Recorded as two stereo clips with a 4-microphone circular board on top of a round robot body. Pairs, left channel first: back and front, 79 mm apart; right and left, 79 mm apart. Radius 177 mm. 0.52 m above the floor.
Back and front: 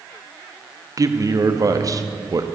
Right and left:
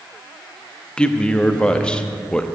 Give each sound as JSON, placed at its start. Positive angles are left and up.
{"t": 1.0, "sound": "a man speaking", "azimuth_deg": -15, "distance_m": 1.1}